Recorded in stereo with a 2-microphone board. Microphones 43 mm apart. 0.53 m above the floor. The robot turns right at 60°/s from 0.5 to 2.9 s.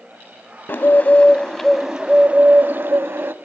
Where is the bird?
120° left, 0.6 m; by 3.3 s 110° right, 0.6 m.